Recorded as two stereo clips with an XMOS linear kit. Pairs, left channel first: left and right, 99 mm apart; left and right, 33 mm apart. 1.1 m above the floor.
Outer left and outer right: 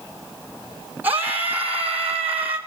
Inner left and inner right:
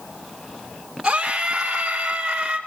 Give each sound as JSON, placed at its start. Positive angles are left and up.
{"t": 1.0, "sound": "a scream", "side_deg": -20, "distance_m": 3.0}